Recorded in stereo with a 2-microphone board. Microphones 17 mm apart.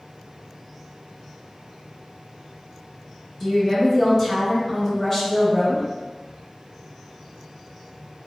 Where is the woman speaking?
20° left (ahead or behind), 1.7 m.